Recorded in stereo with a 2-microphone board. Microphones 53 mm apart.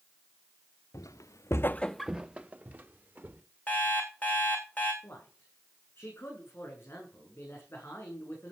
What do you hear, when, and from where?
0.9 s footsteps: 80° left, 1.0 m; by 3.4 s 40° right (ahead or behind), 2 m
3.7 s an alarm clock: 30° left (ahead or behind), 3 m
5.0 s a man speaking: 50° left (ahead or behind), 8.5 m